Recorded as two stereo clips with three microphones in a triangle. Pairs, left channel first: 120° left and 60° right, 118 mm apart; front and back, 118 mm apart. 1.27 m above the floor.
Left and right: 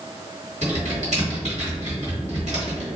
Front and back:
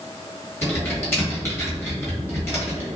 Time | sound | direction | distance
0.6 | typing on a keyboard | 70° right | 1.9 m